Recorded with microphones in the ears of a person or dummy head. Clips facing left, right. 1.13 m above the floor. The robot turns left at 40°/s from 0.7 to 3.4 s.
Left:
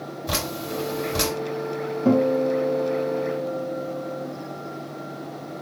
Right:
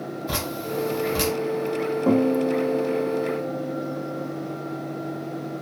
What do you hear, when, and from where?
0.3 s dripping: 50° left (ahead or behind), 2.5 m; by 1.3 s 30° left (ahead or behind), 2.5 m
2.0 s a guitar: 50° left, 1.7 m; by 4.3 s 5° right, 1.7 m